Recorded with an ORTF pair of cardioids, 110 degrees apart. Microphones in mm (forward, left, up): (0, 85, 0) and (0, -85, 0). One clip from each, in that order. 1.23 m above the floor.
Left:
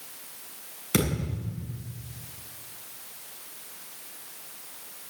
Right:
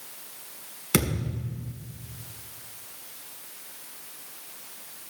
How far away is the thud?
About 6 m.